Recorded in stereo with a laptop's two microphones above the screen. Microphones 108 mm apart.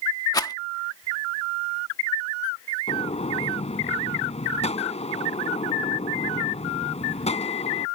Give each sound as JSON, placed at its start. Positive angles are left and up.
{"t": 0.3, "sound": "a rattle", "side_deg": 35}
{"t": 2.9, "sound": "a gunshot", "side_deg": 75}